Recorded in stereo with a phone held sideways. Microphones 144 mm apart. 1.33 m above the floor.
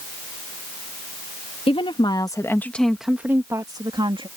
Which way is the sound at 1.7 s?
45° left (ahead or behind).